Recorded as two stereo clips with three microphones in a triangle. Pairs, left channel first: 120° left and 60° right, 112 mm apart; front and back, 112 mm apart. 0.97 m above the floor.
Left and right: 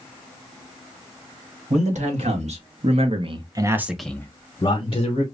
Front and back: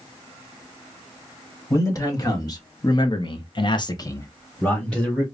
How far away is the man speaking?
About 1.5 m.